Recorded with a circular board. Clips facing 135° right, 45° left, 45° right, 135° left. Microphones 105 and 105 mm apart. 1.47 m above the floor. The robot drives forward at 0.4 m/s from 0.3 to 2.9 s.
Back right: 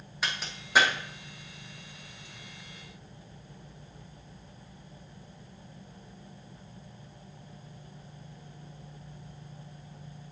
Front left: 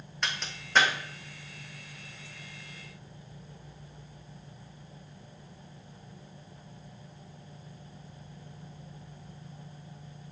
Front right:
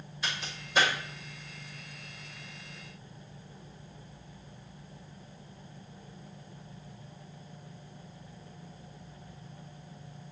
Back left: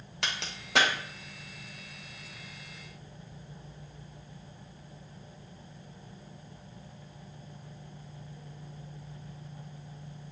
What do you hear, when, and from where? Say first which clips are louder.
0.2 s a crack: even, back left 1 dB; 140° left, 1.6 m; by 0.9 s 145° left, 1.8 m